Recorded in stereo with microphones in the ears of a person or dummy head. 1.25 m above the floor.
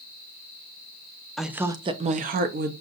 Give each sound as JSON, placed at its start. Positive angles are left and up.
{"t": 1.4, "sound": "a woman speaking", "side_deg": 0, "distance_m": 0.5}